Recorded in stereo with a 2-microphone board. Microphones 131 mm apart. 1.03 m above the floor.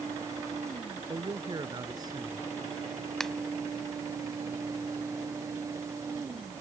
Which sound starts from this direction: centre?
A finger snap, at 3.2 s.